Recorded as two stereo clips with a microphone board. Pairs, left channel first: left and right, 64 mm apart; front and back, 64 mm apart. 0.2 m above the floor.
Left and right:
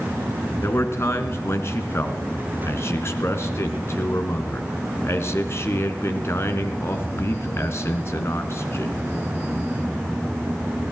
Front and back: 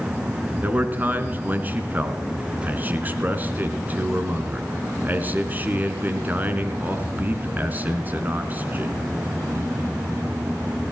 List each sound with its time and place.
0.6 s a man speaking: 125° left, 2 m